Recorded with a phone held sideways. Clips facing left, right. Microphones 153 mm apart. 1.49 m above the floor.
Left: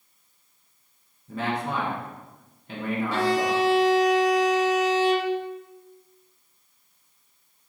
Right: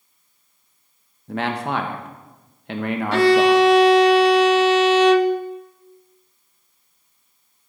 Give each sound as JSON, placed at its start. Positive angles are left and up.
{"t": 1.3, "sound": "a man speaking", "side_deg": -65, "distance_m": 1.2}
{"t": 3.1, "sound": "a violin", "side_deg": -65, "distance_m": 0.5}